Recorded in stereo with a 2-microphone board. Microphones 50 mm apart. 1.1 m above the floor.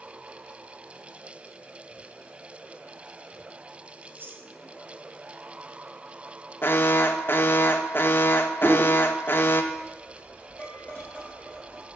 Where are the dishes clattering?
35° left (ahead or behind), 4.5 m.